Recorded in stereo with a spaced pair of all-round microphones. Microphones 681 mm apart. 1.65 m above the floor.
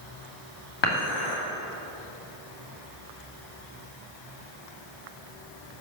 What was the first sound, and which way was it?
Dishes clattering, 40° left (ahead or behind).